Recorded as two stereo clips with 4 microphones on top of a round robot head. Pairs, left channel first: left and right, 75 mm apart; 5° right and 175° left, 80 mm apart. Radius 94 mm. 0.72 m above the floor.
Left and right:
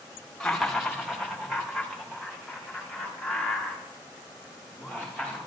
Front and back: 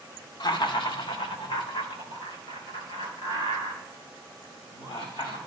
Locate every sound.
0.4 s laughter: 5° left, 1.3 m; by 5.4 s 20° right, 7.5 m